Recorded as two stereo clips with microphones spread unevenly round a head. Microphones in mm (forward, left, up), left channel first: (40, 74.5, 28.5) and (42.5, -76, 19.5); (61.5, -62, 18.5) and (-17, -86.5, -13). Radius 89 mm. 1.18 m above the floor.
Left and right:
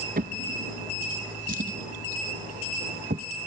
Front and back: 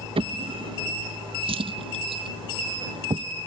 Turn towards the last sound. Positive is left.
turn(degrees=-135)